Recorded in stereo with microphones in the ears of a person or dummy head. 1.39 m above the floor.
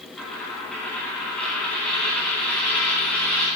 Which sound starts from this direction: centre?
A dropped coin, at 0.2 s.